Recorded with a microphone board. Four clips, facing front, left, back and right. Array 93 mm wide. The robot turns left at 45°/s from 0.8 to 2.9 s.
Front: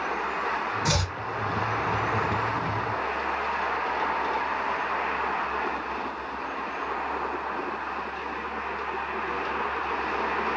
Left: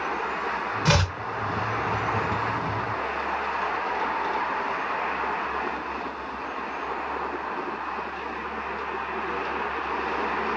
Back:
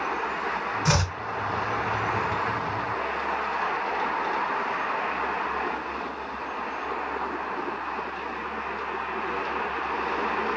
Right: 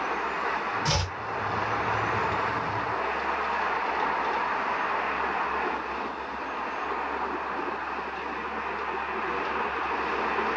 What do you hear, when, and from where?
0.8 s chopping: 120° left, 0.8 m; by 1.2 s 105° left, 0.8 m